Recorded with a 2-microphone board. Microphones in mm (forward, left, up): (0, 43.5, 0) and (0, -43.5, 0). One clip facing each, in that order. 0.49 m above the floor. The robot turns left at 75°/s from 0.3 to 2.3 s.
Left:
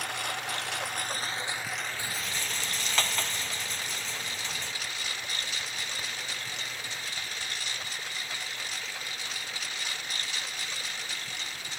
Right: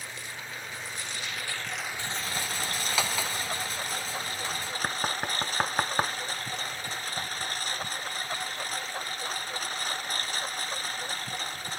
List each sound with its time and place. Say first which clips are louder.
0.0 s a lawn mower: left 7 dB; 110° left; by 11.8 s 40° right
2.0 s a rattle: right 2 dB; 20° left (ahead or behind); by 4.7 s 5° right (ahead or behind)
4.8 s knocking: right 8 dB; 75° right (ahead or behind)